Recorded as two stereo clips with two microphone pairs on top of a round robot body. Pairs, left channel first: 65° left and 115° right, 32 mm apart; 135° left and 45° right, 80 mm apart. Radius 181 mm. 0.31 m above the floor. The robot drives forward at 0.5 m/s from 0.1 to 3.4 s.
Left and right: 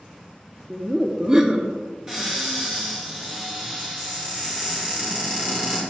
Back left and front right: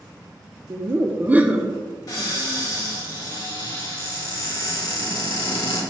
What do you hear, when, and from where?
0.7 s laughter: 40° right, 0.9 m; by 1.7 s 120° right, 0.9 m
2.1 s a cupboard door: straight behind, 2.5 m